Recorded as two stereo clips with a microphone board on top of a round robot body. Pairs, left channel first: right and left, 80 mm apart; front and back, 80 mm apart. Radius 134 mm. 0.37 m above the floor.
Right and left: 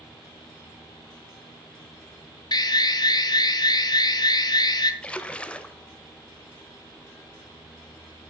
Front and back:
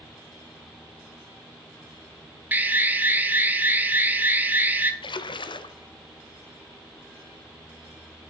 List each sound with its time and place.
2.5 s an alarm: 115° right, 1.3 m
5.0 s a splash: 15° right, 0.8 m